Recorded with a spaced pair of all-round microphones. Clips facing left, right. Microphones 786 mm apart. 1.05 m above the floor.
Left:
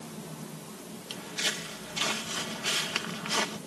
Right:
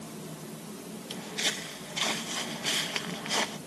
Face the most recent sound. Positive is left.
turn(degrees=40)  # may be behind; listen again after turning